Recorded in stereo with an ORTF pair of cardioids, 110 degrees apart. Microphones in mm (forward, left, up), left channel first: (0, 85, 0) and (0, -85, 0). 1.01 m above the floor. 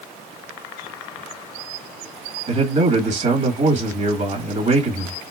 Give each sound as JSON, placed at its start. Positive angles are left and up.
{"t": 2.5, "sound": "a man speaking", "azimuth_deg": -45, "distance_m": 1.8}